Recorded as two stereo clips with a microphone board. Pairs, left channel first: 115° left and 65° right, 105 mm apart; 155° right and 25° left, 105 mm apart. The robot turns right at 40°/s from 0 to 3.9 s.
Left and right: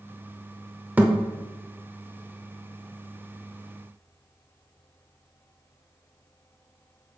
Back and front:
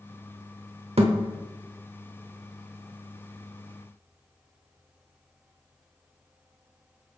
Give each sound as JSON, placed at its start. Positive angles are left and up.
{"t": 1.0, "sound": "a thud", "azimuth_deg": 5, "distance_m": 0.8}